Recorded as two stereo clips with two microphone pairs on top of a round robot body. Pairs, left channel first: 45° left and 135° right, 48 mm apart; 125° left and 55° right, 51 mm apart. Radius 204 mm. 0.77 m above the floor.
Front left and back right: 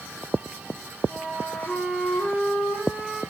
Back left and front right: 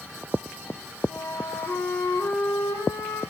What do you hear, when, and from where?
1.1 s a flute: 120° left, 7 m